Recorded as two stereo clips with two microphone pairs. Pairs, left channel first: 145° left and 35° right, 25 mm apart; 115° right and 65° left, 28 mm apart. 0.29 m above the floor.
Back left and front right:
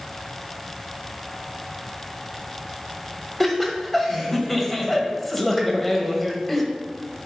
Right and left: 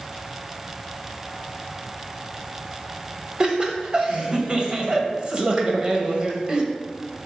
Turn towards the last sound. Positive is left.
turn(degrees=65)